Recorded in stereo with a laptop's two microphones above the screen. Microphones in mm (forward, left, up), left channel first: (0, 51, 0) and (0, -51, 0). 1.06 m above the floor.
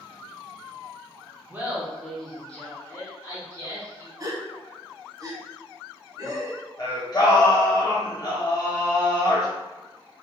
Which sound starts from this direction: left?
Singing, at 6.8 s.